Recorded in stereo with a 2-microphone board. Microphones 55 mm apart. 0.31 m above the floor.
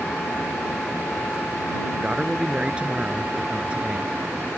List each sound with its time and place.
1.9 s a man speaking: 20° right (ahead or behind)